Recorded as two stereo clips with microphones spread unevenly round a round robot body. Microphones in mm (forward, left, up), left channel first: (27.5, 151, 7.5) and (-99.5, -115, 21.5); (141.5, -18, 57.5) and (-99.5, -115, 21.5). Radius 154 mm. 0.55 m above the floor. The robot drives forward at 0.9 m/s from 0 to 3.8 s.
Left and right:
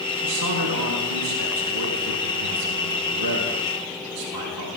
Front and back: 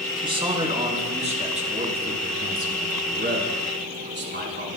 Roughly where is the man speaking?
Right.